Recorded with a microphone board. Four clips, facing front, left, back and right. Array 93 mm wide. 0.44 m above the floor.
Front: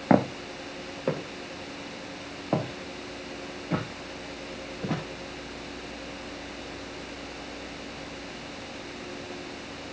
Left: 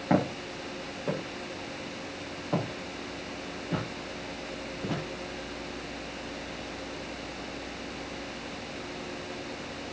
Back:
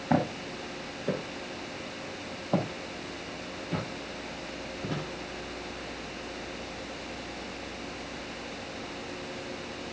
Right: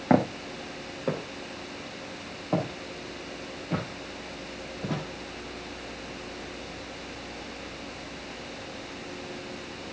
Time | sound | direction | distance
0.1 | footsteps | 30° right | 2 m